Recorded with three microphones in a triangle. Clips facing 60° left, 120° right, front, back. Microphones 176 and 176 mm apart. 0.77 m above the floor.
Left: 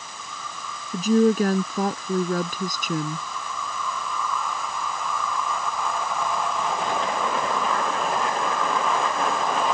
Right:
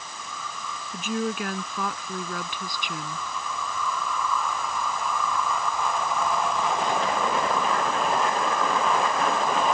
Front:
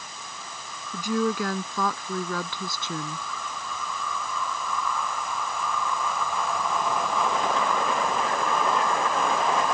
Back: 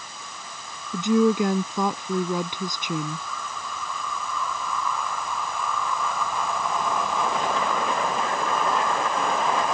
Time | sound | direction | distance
0.9 | a woman speaking | 110° left | ?